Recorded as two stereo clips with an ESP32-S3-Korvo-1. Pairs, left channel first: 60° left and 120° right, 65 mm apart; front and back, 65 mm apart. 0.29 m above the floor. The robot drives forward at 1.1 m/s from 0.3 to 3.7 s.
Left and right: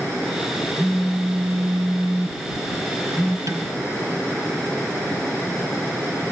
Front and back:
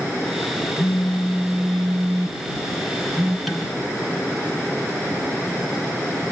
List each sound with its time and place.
0.8 s a phone buzzing: 20° right, 1.0 m; by 3.4 s 170° right, 2 m
3.5 s dishes clattering: 90° right, 2.5 m; by 3.7 s 95° right, 2.5 m